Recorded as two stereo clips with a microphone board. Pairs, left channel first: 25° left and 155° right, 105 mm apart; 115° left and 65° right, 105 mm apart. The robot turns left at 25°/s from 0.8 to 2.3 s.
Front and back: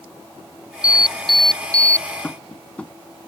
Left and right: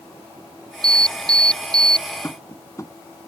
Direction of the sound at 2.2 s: 90° left.